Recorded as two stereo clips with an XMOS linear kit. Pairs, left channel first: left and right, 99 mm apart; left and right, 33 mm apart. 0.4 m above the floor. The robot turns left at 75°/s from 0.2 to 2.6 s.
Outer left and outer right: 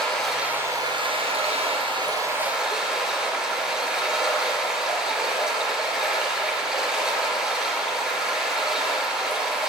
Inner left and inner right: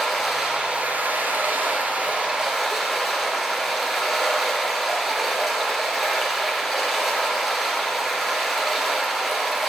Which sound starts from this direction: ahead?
Running water, at 0.0 s.